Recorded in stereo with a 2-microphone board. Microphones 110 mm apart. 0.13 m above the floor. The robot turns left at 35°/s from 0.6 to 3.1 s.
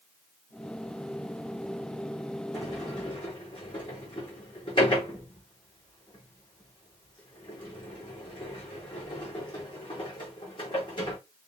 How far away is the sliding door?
About 3 m.